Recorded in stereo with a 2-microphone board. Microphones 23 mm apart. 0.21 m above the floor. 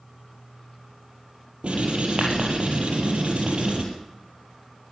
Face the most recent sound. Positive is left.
turn(degrees=-65)  # may be behind; listen again after turning